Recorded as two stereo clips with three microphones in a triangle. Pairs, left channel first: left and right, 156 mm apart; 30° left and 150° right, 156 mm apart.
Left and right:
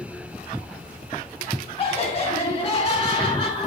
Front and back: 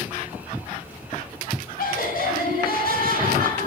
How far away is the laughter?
About 3 m.